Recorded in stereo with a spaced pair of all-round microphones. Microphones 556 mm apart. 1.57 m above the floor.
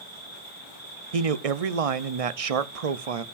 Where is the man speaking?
80° right, 0.7 m.